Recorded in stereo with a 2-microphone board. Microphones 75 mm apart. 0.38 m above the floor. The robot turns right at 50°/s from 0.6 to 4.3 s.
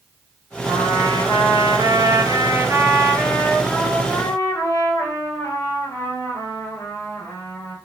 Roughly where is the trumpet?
Behind right.